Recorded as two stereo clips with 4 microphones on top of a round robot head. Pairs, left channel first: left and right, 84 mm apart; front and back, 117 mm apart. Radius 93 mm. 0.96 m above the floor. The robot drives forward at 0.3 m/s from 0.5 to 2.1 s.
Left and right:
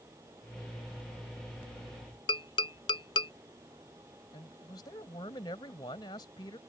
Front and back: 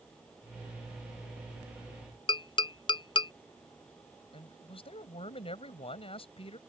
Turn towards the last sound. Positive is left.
turn(degrees=35)